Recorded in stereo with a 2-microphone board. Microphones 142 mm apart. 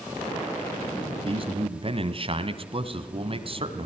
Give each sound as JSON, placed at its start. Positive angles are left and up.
{"t": 1.2, "sound": "a man speaking", "side_deg": -40, "distance_m": 1.5}